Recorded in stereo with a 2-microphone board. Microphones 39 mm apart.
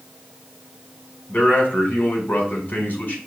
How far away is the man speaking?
About 2.0 m.